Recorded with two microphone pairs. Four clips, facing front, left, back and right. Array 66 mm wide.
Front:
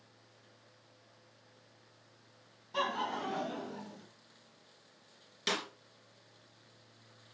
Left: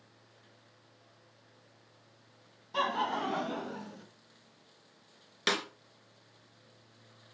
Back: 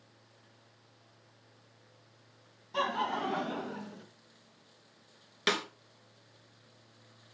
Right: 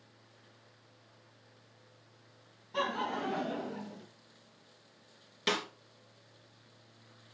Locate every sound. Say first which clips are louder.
2.7 s laughter: left 3 dB, back 3 dB; 105° left, 1.1 m; by 4.0 s 145° left, 2 m
5.5 s a snare drum: left 1 dB, back 5 dB; 145° left, 2.5 m